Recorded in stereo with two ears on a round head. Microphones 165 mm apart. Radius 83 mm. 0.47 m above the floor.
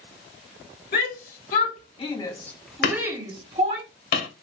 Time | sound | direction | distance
0.9 | a shout | 55° left (ahead or behind) | 1.9 m
2.8 | hammering | 65° left (ahead or behind) | 2 m